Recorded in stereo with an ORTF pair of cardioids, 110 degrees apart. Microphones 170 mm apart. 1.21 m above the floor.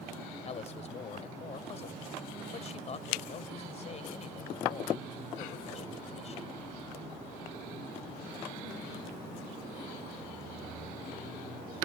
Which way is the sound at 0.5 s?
40° left.